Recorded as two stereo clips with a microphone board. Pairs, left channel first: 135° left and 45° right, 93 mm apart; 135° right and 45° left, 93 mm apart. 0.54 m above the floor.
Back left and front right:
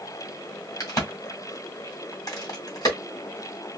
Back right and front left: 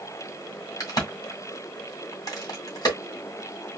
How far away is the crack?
About 1.9 m.